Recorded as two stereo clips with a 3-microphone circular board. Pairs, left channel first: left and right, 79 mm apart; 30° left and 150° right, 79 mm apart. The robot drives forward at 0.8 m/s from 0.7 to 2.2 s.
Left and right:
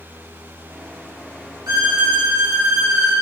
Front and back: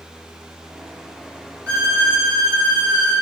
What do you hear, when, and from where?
1.7 s a violin: 105° right, 3 m; by 3.1 s 115° right, 3.5 m